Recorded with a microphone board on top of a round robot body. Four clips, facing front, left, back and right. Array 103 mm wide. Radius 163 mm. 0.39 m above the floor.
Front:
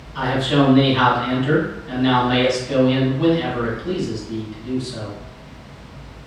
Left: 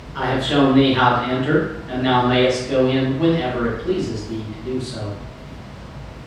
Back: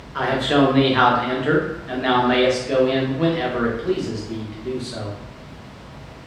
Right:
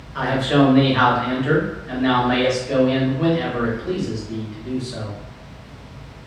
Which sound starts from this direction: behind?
A man speaking, at 0.1 s.